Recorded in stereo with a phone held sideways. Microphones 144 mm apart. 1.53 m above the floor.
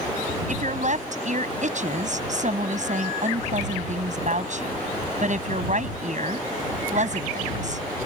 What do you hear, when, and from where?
0.5 s a woman speaking: 60° right (ahead or behind)